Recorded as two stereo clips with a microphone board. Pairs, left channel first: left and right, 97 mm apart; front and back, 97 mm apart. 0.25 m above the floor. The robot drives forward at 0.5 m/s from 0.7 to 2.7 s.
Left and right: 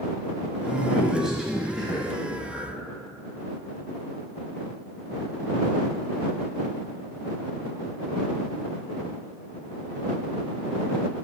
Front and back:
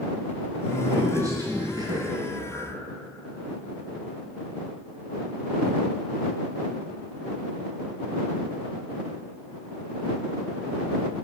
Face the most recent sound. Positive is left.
turn(degrees=-175)